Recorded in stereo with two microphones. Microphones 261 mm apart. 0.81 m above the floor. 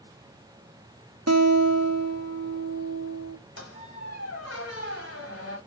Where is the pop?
I don't hear a pop.